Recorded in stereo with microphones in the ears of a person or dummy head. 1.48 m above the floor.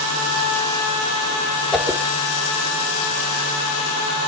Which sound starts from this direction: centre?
A whoosh, at 1.7 s.